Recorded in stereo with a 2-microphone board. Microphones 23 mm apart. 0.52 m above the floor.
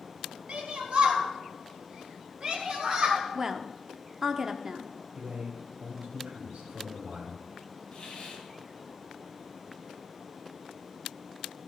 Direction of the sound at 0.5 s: 60° right (ahead or behind).